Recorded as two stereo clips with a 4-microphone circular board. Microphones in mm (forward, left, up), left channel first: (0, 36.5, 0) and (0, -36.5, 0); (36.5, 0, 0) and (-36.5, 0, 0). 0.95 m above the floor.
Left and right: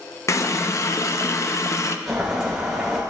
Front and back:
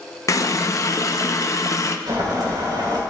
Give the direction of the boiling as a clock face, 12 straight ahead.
6 o'clock.